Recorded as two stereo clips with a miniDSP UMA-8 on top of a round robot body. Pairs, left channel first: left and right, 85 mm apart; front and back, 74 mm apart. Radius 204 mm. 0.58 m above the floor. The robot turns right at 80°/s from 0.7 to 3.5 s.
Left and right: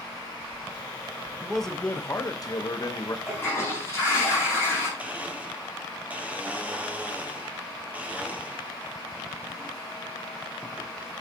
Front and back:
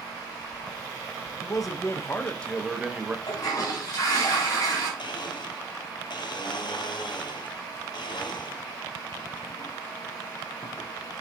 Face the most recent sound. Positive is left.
turn(degrees=-15)